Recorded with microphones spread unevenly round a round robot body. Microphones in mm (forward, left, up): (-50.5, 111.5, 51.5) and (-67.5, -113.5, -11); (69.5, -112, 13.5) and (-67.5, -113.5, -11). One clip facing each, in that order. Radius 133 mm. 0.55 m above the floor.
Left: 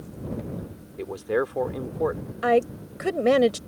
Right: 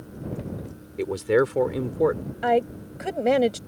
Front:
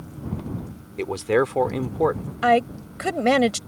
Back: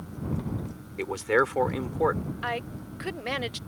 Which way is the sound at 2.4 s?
Straight ahead.